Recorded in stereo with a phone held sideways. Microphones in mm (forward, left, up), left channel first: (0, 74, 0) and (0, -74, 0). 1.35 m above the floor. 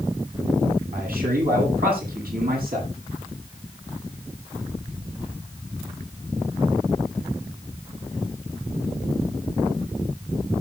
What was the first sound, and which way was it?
A man speaking, 80° right.